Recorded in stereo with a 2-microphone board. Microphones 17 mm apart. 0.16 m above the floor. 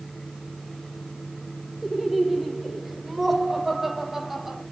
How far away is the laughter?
About 5.5 m.